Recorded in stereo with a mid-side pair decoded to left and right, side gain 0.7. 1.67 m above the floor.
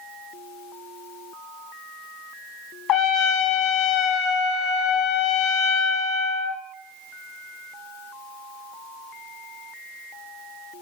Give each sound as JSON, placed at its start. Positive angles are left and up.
{"t": 2.9, "sound": "a trumpet", "azimuth_deg": 45, "distance_m": 1.1}